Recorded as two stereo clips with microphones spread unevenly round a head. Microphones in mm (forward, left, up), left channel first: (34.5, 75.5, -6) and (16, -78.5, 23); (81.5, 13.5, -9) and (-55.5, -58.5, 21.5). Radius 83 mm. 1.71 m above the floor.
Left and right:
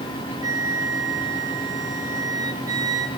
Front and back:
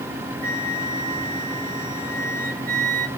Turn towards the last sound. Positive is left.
turn(degrees=-160)